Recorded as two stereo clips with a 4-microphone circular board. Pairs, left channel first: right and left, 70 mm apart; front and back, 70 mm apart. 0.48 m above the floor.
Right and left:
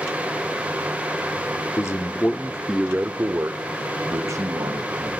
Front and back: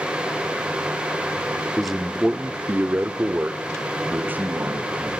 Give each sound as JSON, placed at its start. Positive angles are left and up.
{"t": 1.8, "sound": "a man speaking", "azimuth_deg": -85, "distance_m": 1.1}